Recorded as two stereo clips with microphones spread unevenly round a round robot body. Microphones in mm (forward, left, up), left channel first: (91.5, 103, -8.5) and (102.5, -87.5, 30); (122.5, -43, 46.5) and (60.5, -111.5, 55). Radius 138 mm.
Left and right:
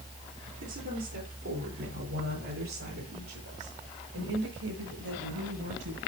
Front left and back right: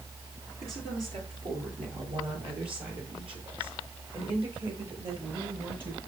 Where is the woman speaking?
125° right, 8.5 m; by 6.0 s 100° right, 11.5 m.